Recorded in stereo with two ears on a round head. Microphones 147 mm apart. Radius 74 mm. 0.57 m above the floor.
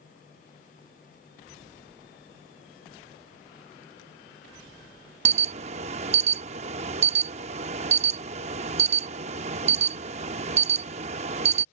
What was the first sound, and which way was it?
An alarm, 45° right (ahead or behind).